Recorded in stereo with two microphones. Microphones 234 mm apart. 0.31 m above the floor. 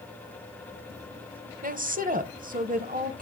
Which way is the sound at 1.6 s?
35° right (ahead or behind).